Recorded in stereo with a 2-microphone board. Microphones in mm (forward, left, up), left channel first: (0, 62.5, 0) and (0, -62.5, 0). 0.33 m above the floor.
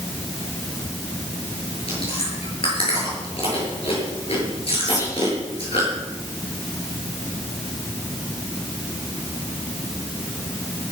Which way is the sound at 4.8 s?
30° left (ahead or behind).